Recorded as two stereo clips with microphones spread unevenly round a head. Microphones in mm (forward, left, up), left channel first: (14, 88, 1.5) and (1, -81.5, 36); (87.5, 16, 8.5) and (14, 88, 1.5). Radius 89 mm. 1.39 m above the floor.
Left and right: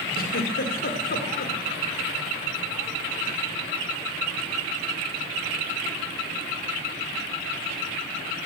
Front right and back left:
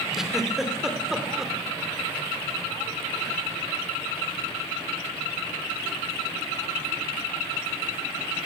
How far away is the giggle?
About 2.5 m.